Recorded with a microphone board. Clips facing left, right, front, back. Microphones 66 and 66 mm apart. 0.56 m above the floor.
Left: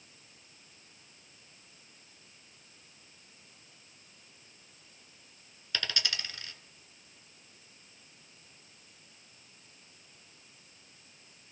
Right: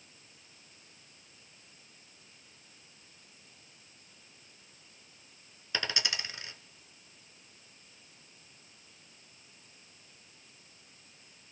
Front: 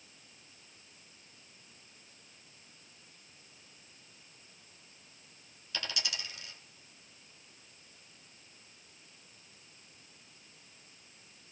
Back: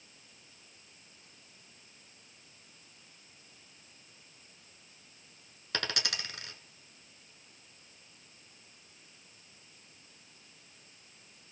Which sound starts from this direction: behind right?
A dropped coin, at 5.7 s.